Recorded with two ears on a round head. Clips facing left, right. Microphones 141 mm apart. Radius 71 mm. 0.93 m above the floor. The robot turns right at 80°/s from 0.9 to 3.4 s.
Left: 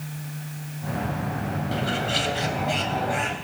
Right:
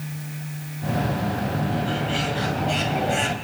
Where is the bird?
95° left, 3.5 m; by 3.4 s 135° right, 3.5 m.